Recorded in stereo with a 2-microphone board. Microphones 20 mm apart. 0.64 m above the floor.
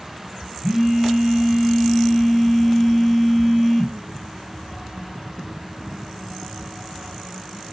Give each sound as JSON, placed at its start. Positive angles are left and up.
{"t": 0.6, "sound": "a phone buzzing", "side_deg": -25, "distance_m": 4.0}